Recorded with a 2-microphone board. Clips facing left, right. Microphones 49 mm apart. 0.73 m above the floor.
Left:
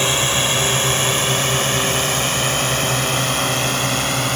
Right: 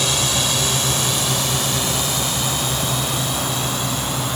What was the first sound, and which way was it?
A drone, 35° left (ahead or behind).